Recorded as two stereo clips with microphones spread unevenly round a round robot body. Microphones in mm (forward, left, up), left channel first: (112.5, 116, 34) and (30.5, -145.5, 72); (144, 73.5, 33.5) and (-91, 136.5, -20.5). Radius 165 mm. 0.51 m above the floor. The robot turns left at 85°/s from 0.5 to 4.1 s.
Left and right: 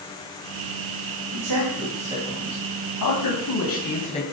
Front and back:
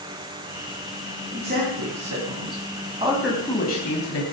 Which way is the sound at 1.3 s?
115° right.